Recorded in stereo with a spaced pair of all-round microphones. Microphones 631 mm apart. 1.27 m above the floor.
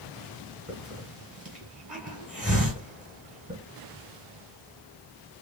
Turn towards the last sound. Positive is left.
turn(degrees=-10)  # may be behind; listen again after turning